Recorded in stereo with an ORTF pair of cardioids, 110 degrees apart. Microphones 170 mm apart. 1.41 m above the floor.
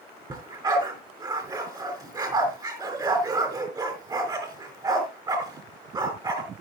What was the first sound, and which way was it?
A dog barking, 25° right.